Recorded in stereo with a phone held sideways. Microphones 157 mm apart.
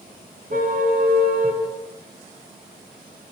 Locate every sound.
0.5 s a car horn: 70° right (ahead or behind), 5 m; by 1.6 s 65° right (ahead or behind), 7 m